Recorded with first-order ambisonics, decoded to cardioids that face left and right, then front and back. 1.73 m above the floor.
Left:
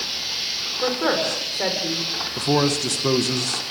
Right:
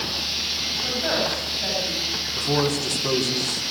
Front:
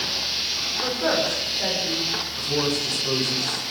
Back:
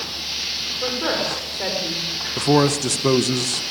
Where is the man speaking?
160° left, 2 m.